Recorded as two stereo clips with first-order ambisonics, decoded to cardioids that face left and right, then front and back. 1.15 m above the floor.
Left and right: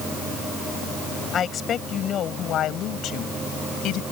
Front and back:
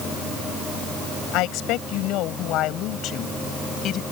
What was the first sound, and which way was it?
A woman speaking, 30° left.